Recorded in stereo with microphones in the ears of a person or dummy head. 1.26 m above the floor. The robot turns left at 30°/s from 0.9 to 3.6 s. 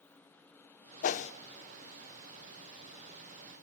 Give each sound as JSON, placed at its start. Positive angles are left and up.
{"t": 1.0, "sound": "a whoosh", "side_deg": 40, "distance_m": 0.7}